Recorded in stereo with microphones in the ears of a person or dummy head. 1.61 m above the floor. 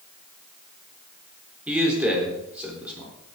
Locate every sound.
1.7 s a man speaking: 5° right (ahead or behind), 4 m